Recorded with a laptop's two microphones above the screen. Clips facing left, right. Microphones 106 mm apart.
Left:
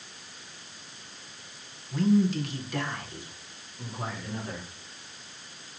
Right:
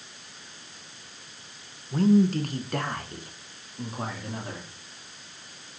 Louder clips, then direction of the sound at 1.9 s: Right 3 dB; 40° right (ahead or behind).